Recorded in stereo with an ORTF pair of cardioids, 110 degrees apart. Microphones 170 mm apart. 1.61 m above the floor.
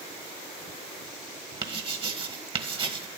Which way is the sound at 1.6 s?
30° right.